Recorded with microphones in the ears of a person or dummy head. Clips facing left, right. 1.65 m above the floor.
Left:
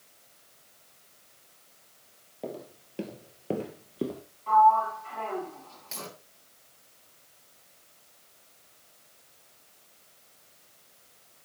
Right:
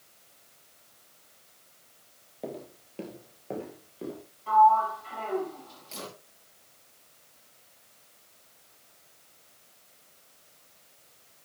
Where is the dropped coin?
20° left (ahead or behind), 6.5 m.